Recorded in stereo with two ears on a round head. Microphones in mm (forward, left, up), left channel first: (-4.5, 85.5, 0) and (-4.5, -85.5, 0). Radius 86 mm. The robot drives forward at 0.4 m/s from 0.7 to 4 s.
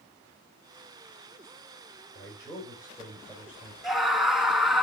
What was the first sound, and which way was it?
A man speaking, 15° left (ahead or behind).